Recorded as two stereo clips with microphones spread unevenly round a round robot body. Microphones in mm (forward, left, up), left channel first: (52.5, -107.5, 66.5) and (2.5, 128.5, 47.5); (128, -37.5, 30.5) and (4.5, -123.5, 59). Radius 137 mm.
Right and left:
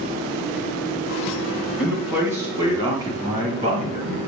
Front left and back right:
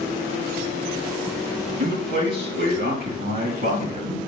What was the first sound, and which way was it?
A man speaking, 170° right.